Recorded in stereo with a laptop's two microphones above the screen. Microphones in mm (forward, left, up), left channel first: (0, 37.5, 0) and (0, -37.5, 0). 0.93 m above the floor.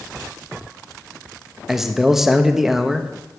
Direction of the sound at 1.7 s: 5° right (ahead or behind).